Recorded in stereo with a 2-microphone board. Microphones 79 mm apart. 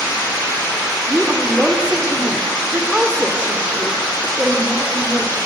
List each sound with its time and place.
1.1 s a woman speaking: 10° right (ahead or behind), 0.9 m